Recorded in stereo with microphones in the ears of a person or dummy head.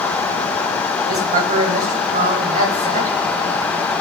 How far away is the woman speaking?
About 7 m.